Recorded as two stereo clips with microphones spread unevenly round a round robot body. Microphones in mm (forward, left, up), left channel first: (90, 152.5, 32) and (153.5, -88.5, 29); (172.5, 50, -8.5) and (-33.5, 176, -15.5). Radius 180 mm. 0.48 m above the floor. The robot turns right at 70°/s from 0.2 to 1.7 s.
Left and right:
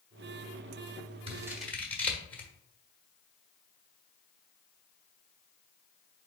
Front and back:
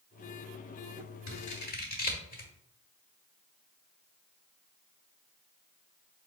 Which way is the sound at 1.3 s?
10° right.